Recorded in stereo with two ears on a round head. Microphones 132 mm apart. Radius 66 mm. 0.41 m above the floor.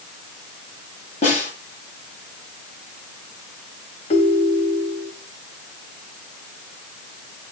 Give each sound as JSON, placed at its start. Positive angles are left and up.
{"t": 1.2, "sound": "a snare drum", "side_deg": 45, "distance_m": 8.5}
{"t": 4.1, "sound": "a ringtone", "side_deg": 45, "distance_m": 1.7}